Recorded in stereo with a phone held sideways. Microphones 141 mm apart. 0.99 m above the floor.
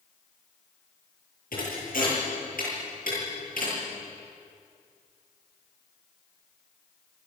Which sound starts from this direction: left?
A thud, at 1.5 s.